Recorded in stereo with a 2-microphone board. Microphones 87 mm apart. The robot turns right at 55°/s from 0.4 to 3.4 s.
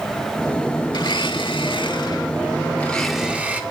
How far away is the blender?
About 1.9 m.